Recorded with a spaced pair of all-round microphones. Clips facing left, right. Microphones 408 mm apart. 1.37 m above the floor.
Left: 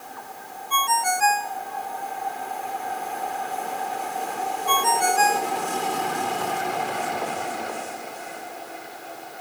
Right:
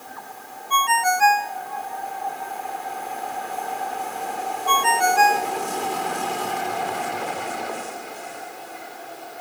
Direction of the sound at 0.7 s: 70° right (ahead or behind).